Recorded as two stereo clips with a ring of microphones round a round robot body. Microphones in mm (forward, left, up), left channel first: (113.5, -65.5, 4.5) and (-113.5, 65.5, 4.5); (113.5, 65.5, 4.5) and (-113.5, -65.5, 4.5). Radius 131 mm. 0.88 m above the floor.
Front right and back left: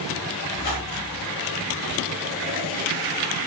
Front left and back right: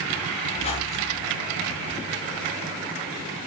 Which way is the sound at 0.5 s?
40° right.